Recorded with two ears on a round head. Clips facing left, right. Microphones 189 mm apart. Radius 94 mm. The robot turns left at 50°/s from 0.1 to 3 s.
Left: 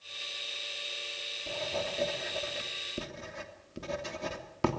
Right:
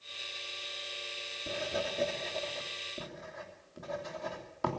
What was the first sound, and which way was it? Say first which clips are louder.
Writing: even; 30° right (ahead or behind).